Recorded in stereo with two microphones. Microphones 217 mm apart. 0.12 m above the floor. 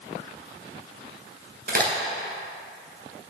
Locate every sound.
1.7 s a crack: 45° right (ahead or behind), 1.1 m